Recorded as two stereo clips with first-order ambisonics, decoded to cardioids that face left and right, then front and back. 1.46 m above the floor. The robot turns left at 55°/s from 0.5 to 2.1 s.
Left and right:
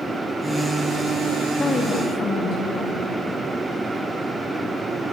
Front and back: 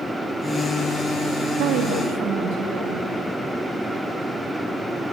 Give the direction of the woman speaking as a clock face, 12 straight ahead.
6 o'clock.